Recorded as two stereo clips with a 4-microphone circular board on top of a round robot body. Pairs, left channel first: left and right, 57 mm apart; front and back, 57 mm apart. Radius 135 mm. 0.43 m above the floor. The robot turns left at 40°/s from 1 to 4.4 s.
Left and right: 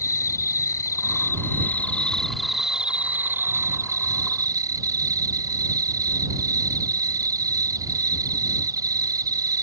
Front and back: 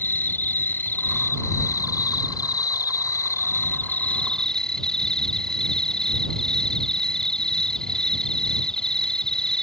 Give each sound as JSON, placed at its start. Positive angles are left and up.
{"t": 0.0, "sound": "an insect", "azimuth_deg": 60}